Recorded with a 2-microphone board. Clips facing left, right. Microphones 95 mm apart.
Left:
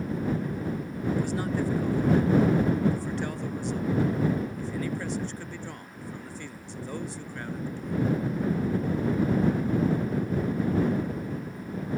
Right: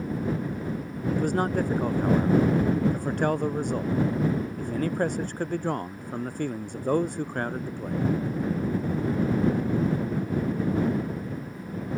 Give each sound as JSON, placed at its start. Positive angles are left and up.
{"t": 1.1, "sound": "a man speaking", "side_deg": -50}